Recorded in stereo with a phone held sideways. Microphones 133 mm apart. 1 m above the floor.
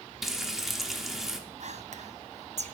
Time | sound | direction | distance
0.2 | frying | centre (ahead or behind) | 0.8 m
1.6 | whispering | 55° right (ahead or behind) | 0.6 m